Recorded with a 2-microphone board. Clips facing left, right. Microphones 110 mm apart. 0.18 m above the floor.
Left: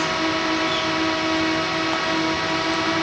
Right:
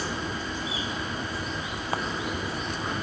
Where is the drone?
85° left.